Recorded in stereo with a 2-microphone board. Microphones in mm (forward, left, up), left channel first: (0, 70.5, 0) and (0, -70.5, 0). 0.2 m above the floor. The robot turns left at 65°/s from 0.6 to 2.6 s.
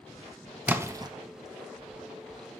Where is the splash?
15° right (ahead or behind), 0.9 m; by 1.1 s 30° right (ahead or behind), 0.9 m.